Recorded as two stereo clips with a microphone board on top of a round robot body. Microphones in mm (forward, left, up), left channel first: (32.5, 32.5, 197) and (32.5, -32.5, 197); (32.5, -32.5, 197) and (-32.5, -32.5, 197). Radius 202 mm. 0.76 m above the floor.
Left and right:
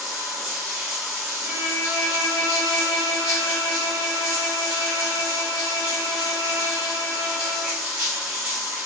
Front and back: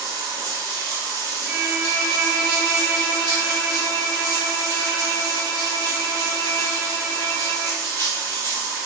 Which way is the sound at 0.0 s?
170° right.